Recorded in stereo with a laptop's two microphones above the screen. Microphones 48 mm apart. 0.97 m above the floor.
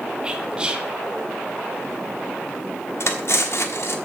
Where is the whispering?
20° right (ahead or behind), 1.1 m.